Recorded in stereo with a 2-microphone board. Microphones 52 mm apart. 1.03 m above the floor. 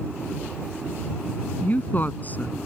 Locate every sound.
1.6 s a woman speaking: 35° left (ahead or behind)